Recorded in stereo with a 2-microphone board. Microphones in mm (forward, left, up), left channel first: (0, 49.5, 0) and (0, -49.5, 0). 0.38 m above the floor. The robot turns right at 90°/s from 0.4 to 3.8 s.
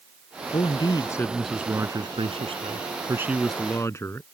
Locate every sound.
0.5 s a man speaking: 95° left; by 4.3 s 30° left